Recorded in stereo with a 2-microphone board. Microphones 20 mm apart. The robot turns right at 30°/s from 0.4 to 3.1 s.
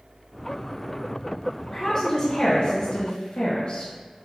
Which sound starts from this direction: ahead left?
A woman speaking, at 1.7 s.